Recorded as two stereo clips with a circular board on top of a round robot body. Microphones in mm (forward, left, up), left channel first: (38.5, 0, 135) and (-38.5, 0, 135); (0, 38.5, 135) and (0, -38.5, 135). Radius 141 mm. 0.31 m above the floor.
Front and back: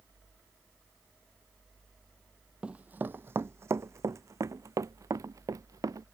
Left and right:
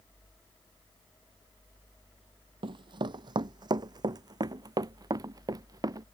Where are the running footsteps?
100° right; by 6.0 s 130° right.